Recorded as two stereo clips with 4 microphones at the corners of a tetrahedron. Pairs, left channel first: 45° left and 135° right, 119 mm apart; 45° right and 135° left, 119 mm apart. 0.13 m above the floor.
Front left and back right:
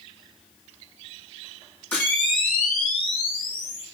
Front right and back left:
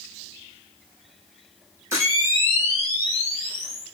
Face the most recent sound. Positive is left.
turn(degrees=105)